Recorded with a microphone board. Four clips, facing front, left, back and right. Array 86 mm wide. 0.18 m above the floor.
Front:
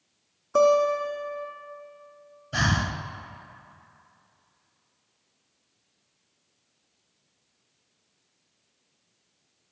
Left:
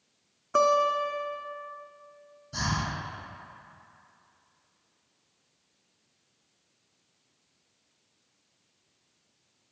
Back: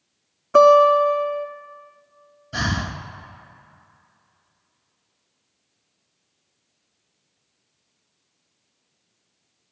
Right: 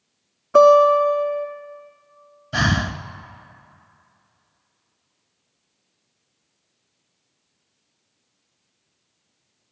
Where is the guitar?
165° right, 0.6 m.